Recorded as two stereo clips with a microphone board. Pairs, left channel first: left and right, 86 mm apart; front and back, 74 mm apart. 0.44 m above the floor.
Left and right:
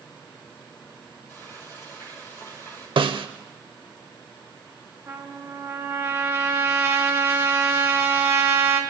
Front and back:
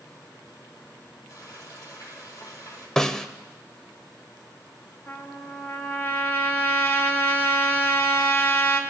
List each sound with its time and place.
1.3 s frying: 40° left, 6.5 m
3.0 s a snare drum: 80° right, 0.5 m
5.1 s a trumpet: 45° right, 1.1 m